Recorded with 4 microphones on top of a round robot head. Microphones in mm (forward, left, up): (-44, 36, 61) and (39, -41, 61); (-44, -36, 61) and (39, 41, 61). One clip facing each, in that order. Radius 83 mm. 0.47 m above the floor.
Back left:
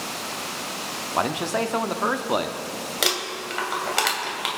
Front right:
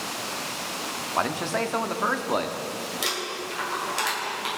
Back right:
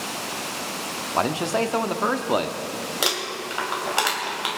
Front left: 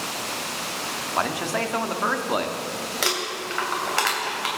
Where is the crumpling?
155° left, 2.5 m.